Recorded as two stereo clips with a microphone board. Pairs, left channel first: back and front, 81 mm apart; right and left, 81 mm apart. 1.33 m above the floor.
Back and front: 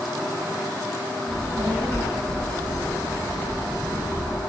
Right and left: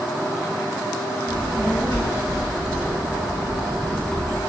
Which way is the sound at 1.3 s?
105° right.